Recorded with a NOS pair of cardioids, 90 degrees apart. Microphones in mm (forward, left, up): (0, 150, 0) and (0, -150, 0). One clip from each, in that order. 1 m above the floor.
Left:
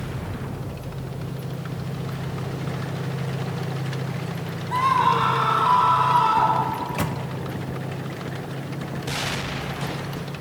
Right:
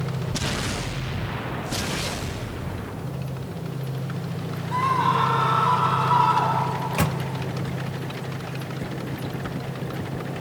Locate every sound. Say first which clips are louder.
4.7 s a scream: left 2 dB; 20° left, 3 m; by 6.7 s 10° left, 4.5 m
6.8 s a microwave: right 1 dB; 25° right, 1.2 m